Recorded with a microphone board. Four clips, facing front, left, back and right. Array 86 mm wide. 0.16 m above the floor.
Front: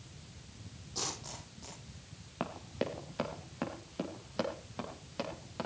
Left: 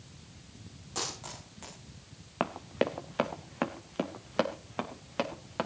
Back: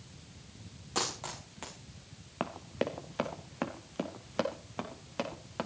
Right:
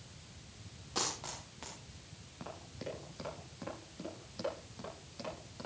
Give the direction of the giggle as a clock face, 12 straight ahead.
No giggle in this recording.